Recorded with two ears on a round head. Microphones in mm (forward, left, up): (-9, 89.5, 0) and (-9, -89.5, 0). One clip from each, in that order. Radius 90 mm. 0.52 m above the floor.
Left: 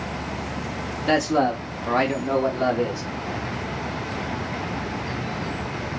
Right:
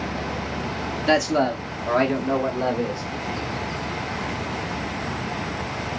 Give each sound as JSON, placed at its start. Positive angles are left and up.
{"t": 1.1, "sound": "a man speaking", "side_deg": -15, "distance_m": 1.0}